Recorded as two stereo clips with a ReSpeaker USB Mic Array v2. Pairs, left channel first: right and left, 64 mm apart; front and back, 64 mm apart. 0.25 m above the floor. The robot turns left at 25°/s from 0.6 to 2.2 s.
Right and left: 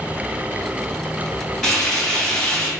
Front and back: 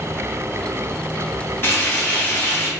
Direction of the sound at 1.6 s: 5° right.